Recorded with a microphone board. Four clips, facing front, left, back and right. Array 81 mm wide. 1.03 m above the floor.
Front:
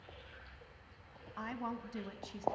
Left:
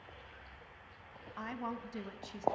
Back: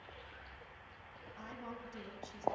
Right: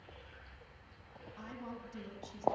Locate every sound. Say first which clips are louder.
1.4 s a woman speaking: left 6 dB, front 7 dB; 45° left, 1.6 m